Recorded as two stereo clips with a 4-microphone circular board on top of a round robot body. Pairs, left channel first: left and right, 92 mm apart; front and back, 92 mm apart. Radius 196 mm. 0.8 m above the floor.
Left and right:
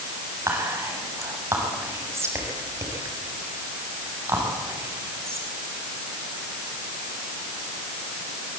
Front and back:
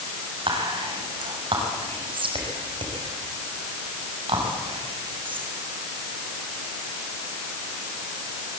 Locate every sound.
0.5 s whispering: 150° right, 6 m